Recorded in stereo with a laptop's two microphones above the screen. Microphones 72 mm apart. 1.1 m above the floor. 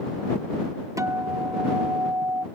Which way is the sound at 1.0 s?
45° right (ahead or behind).